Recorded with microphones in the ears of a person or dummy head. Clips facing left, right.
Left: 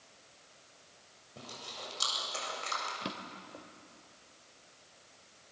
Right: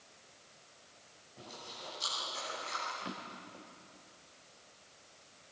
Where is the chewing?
85° left, 7.5 m.